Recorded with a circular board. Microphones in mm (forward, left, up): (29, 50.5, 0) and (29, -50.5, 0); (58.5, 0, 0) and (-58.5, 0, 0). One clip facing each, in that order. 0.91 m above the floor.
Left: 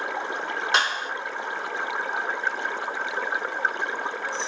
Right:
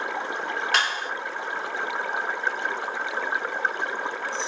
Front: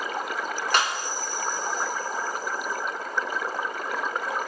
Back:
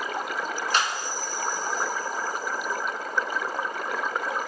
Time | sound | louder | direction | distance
0.7 | a clap | left 2 dB, front 2 dB | 25° left | 2.0 m